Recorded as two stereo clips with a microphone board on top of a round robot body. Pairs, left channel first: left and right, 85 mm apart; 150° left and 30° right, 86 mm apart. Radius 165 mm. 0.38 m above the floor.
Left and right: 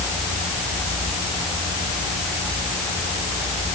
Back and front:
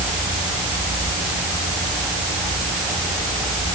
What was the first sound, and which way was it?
Only background noise.